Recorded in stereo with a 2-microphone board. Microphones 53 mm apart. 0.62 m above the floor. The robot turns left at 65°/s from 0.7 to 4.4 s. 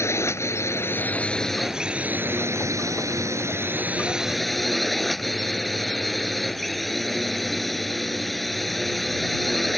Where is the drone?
60° left; by 9.8 s 175° left.